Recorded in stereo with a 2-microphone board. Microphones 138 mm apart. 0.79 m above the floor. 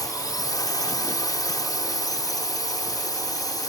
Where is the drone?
25° left (ahead or behind).